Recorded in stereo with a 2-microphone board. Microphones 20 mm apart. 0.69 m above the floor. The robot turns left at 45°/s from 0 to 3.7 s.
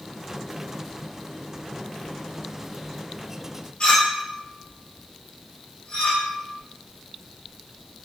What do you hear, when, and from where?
3.8 s a clink: 60° left (ahead or behind), 1.1 m